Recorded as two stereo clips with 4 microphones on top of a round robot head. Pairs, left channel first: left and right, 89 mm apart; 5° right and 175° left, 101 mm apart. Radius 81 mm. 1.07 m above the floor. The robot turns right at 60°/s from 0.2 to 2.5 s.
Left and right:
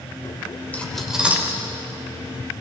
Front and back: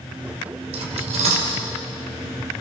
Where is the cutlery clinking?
160° left, 3 m; by 1.6 s 145° right, 3 m.